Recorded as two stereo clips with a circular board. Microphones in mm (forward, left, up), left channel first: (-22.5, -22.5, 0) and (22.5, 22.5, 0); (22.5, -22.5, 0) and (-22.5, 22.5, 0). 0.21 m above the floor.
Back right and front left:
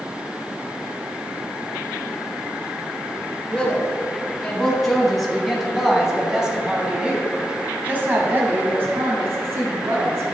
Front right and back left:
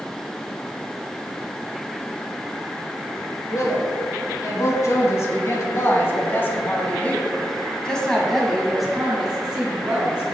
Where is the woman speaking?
60° right, 3 m; by 10.3 s 70° left, 2.5 m.